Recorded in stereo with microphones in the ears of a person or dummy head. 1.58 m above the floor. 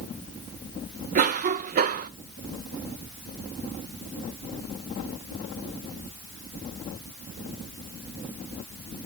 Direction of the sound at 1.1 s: 50° right (ahead or behind).